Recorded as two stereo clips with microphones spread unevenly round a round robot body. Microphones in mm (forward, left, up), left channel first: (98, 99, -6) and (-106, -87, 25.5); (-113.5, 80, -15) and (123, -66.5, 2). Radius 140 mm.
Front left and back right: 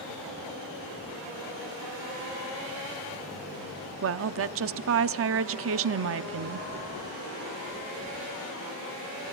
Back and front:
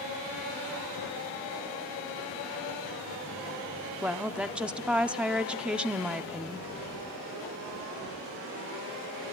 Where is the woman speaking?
120° right, 0.7 m.